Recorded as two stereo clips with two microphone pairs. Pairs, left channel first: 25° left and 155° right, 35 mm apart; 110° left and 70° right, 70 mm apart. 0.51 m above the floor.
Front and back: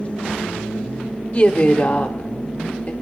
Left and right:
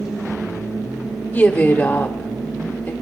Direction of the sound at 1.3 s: 50° left.